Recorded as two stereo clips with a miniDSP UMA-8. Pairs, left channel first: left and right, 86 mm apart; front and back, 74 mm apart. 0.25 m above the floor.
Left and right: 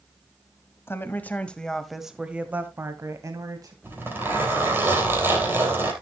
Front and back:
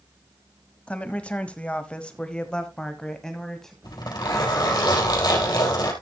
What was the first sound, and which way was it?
A woman speaking, 60° left.